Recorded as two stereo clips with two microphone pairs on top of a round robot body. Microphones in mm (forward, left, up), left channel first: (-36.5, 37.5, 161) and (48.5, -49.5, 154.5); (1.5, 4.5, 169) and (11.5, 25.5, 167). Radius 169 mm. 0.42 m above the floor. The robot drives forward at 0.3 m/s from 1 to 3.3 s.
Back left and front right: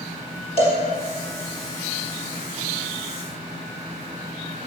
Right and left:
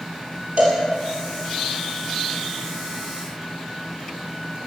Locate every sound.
0.6 s a cowbell: 100° left, 3.5 m